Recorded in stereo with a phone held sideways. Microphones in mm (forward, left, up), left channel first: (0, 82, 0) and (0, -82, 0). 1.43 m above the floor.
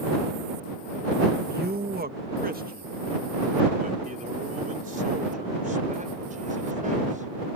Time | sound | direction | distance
1.5 | a man speaking | 75° right (ahead or behind) | ?